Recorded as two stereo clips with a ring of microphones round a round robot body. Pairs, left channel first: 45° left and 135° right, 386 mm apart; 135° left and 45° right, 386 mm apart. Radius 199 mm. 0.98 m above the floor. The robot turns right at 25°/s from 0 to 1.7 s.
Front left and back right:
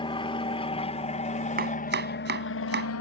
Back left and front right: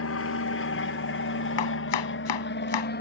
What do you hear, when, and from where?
0.0 s an aircraft: 115° left; by 3.0 s 80° left
1.6 s chopping: 155° left; by 2.9 s 160° left